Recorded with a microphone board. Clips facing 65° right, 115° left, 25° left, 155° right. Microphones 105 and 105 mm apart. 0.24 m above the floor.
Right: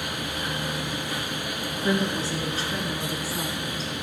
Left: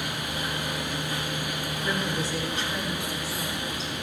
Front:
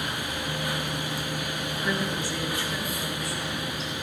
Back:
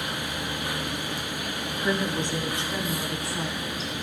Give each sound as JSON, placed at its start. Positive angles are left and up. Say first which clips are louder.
{"t": 1.8, "sound": "a woman speaking", "louder": "right 5 dB, back 3 dB", "azimuth_deg": -95, "distance_m": 1.3}